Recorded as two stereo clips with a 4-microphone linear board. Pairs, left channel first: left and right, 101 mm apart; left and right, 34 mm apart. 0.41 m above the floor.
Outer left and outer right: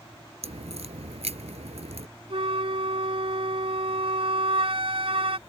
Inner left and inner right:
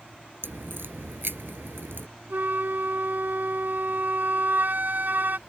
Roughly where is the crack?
Right.